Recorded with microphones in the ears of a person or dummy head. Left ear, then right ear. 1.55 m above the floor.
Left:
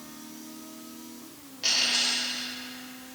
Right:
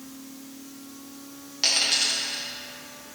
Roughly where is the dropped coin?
Right.